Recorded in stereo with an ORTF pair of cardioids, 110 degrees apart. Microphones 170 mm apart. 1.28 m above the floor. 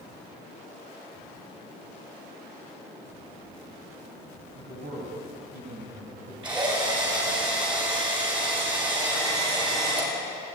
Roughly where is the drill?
Ahead right.